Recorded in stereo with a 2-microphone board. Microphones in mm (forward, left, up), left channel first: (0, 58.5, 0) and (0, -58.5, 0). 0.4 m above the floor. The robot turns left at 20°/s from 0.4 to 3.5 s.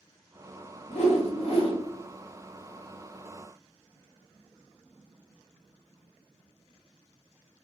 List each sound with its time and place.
0.9 s a whoosh: 65° left (ahead or behind), 0.7 m; by 1.8 s 50° left (ahead or behind), 0.7 m